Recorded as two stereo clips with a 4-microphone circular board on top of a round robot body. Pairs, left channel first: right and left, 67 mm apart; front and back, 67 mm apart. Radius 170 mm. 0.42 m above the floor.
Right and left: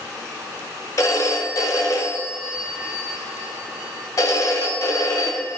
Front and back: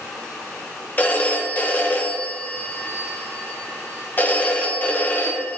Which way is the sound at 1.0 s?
65° right.